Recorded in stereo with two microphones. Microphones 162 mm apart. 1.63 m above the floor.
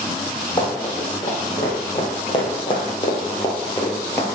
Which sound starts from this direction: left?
Running footsteps, at 0.6 s.